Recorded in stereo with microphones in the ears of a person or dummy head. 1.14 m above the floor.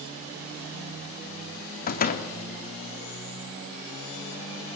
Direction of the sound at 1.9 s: 45° left (ahead or behind).